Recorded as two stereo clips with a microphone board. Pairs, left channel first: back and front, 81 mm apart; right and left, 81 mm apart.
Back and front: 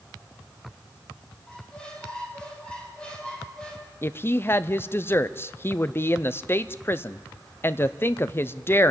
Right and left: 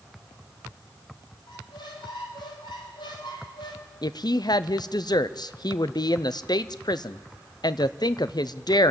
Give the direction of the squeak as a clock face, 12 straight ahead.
3 o'clock.